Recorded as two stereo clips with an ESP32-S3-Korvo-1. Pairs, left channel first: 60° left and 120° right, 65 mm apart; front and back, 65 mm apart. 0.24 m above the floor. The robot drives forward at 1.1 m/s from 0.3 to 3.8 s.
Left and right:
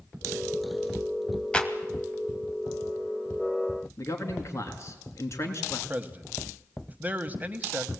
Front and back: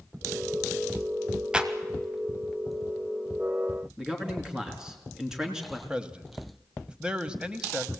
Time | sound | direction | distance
1.5 | a clap | 120° left | 1.3 m
4.0 | a man speaking | 100° left | 3 m
5.9 | a man speaking | 125° right | 1.1 m